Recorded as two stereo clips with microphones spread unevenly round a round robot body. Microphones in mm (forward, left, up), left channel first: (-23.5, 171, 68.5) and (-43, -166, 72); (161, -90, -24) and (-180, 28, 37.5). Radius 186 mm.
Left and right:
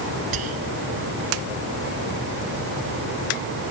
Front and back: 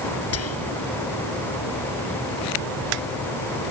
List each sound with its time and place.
0.3 s whispering: 70° right